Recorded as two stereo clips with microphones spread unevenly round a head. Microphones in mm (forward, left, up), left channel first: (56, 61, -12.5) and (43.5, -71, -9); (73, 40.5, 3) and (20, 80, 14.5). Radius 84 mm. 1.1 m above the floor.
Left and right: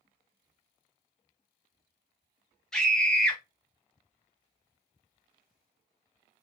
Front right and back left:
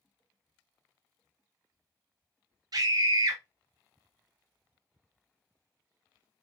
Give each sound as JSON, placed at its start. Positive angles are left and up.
{"t": 2.7, "sound": "a scream", "azimuth_deg": 170, "distance_m": 1.0}